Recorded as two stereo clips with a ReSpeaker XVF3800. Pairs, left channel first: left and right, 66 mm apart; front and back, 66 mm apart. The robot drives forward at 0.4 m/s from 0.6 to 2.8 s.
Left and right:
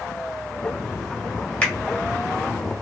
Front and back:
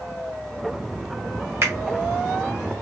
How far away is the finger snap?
About 1.8 m.